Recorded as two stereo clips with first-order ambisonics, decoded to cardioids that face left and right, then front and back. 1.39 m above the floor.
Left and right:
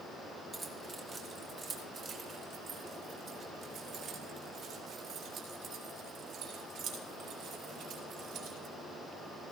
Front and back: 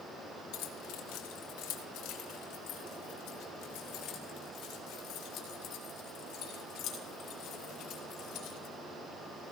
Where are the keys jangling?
10° right, 1.7 m; by 8.7 s 45° right, 6 m.